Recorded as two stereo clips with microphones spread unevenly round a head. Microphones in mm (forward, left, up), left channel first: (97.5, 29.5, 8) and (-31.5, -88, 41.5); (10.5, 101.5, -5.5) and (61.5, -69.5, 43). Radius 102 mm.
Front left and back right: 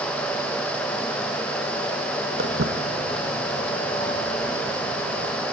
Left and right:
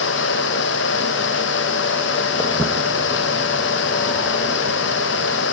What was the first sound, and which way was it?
Footsteps, 175° right.